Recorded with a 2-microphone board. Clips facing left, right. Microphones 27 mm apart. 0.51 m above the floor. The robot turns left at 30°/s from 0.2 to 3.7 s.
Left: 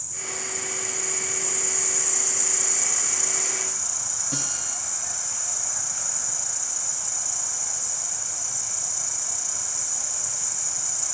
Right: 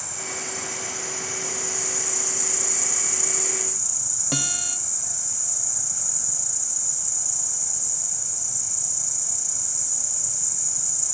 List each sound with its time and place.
0.0 s an insect: 105° right, 0.7 m; by 11.2 s 150° left, 0.7 m
4.3 s a guitar: 60° right (ahead or behind), 2.5 m